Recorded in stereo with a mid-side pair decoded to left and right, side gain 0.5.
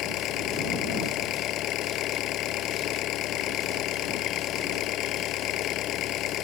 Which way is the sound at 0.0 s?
70° left.